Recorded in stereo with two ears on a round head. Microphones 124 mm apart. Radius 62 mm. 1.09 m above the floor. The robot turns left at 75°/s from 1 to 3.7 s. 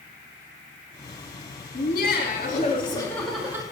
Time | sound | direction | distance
1.7 | laughter | 120° left | 2.5 m